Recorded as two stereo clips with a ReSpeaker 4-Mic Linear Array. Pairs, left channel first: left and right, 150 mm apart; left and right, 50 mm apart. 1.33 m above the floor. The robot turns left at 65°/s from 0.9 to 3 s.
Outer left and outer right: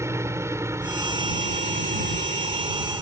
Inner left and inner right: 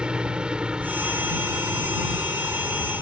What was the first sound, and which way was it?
A helicopter, 20° right.